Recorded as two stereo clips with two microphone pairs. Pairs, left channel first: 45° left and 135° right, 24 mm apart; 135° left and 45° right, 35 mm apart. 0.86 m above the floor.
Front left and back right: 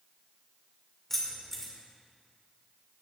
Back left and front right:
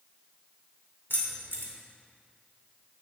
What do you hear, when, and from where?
1.1 s keys jangling: 120° left, 2 m